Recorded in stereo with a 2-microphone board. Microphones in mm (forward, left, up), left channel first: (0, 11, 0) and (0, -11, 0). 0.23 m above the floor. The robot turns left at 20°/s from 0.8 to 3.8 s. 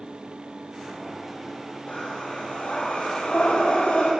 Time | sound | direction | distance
1.9 | breathing | 125° left | 4.5 m